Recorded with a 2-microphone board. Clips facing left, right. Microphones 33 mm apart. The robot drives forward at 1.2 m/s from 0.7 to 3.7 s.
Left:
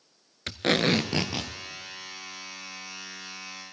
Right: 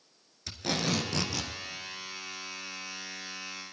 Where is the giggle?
I don't hear a giggle.